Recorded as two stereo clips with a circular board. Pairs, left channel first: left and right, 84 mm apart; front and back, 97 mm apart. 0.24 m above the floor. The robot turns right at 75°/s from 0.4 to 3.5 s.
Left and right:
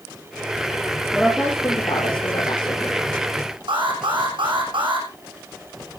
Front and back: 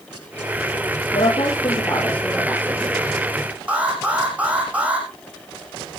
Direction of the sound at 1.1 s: Straight ahead.